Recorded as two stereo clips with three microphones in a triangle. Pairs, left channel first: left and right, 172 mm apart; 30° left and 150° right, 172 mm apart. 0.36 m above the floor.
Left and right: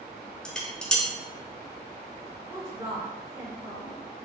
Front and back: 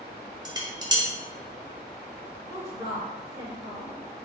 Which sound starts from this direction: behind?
Dishes clattering, at 0.5 s.